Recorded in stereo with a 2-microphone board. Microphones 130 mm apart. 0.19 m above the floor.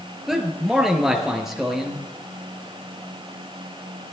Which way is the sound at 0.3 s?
5° right (ahead or behind).